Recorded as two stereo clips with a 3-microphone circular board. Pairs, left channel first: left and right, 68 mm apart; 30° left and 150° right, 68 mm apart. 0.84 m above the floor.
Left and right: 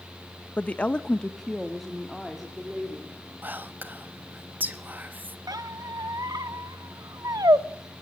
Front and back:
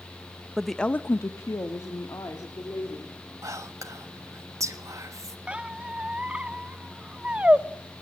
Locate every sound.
0.6 s a woman speaking: 140° left, 0.7 m; by 3.2 s 5° right, 3 m
3.4 s whispering: 145° right, 1.3 m
5.5 s a squeak: 75° right, 0.7 m